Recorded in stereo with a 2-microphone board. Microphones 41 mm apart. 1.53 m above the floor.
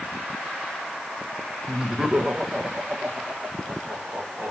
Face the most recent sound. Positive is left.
turn(degrees=-45)  # may be behind; listen again after turning